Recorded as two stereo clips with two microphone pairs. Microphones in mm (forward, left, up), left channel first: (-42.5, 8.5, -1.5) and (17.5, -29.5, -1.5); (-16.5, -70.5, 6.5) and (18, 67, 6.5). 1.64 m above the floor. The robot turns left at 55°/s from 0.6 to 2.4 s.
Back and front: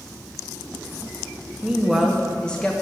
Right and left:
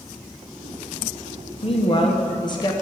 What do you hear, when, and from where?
1.6 s a woman speaking: 100° right, 0.7 m; by 2.7 s 140° right, 0.7 m